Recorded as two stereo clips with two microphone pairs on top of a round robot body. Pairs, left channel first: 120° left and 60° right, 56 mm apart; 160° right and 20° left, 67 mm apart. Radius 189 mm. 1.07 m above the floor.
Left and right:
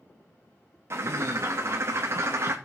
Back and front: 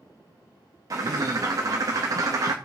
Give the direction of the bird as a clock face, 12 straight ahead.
1 o'clock.